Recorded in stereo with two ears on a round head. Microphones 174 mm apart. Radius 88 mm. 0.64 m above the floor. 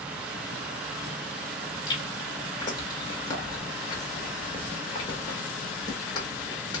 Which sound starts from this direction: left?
Chewing, at 1.9 s.